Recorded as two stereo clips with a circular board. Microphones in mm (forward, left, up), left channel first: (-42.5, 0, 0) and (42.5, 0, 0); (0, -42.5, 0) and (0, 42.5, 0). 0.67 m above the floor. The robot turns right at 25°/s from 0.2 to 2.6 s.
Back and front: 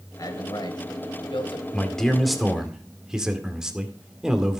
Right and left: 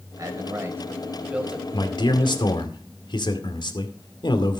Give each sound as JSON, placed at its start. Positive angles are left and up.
{"t": 0.2, "sound": "a man speaking", "azimuth_deg": 135, "distance_m": 2.5}
{"t": 1.7, "sound": "a man speaking", "azimuth_deg": -105, "distance_m": 2.0}